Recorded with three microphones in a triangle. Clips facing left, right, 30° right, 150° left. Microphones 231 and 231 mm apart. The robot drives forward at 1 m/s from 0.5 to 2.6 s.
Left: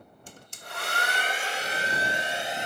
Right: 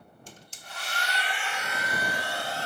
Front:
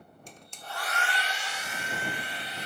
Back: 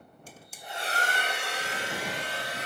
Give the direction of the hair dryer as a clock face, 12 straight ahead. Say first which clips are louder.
Left 5 dB, back 1 dB; 10 o'clock.